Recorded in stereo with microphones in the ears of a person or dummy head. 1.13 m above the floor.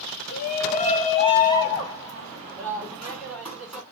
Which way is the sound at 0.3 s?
45° left (ahead or behind).